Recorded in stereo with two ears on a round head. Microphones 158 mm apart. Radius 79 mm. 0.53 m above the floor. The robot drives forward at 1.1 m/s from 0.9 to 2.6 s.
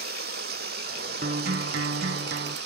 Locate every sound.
0.0 s running water: 55° right (ahead or behind); by 2.7 s 65° right (ahead or behind)
1.2 s a guitar: 45° right (ahead or behind); by 2.6 s 50° right (ahead or behind)